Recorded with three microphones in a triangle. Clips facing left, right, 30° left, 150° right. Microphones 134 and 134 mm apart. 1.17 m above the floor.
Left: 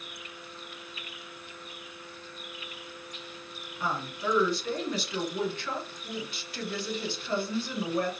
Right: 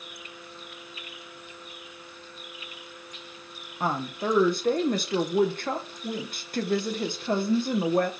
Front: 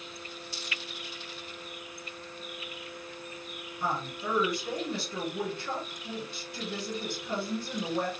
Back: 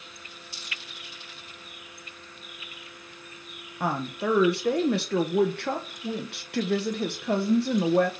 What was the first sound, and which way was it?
A woman speaking, 130° right.